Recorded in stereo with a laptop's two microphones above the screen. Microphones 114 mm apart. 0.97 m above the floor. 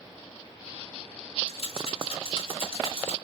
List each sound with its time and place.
1.5 s a rattle: 55° left (ahead or behind), 2 m